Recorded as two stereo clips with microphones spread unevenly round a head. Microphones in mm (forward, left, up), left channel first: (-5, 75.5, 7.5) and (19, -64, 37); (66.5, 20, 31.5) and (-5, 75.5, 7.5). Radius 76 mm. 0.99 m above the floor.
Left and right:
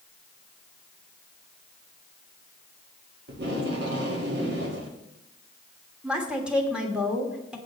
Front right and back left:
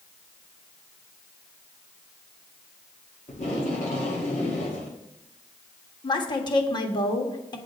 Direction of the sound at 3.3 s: 65° right.